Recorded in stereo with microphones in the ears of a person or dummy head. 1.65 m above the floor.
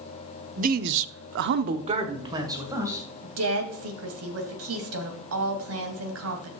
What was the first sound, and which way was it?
A man speaking, 40° right (ahead or behind).